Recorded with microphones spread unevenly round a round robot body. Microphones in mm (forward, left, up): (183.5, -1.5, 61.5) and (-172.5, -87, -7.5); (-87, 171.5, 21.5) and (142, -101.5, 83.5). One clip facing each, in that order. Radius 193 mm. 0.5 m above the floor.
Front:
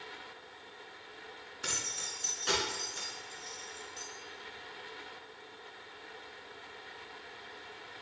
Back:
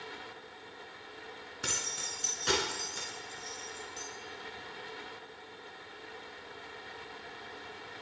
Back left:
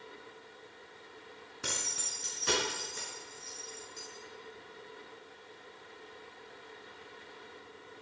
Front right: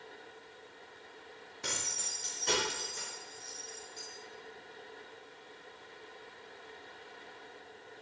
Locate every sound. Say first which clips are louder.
1.6 s keys jangling: back 2 dB, back left 1 dB; 155° right, 4 m